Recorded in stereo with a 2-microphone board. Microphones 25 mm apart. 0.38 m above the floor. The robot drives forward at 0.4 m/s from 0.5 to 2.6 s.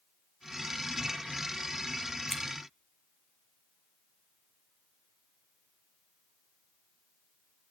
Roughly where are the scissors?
Centre.